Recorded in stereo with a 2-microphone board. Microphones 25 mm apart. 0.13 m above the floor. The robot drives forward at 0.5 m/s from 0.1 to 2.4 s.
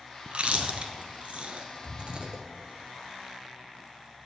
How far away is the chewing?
About 1.0 m.